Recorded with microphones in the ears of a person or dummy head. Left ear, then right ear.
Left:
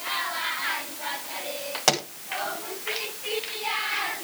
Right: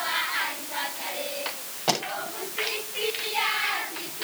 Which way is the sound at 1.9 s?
65° left (ahead or behind).